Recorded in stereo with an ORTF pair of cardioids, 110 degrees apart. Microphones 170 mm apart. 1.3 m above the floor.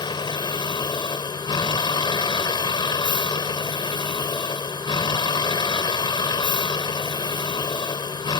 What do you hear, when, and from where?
0.0 s a vehicle: 25° left